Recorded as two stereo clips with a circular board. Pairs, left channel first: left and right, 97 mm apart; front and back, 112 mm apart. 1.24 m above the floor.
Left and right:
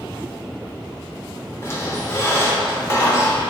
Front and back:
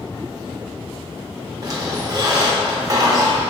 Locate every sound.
1.6 s a squeak: 140° left, 0.8 m